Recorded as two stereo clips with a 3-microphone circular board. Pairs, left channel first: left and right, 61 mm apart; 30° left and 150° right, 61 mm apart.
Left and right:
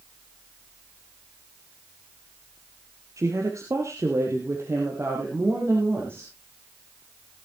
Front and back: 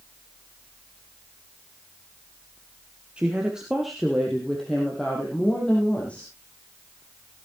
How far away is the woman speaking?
About 1.9 m.